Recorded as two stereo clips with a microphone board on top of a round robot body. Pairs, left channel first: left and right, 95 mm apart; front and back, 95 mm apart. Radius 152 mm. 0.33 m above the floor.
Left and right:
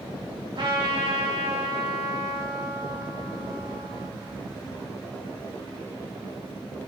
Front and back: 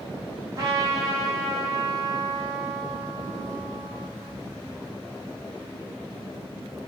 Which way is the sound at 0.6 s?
125° right.